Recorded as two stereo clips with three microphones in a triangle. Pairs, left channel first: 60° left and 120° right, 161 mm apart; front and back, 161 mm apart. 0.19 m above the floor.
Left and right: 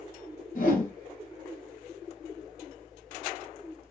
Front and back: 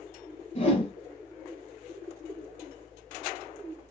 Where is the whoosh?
35° left, 2.5 m.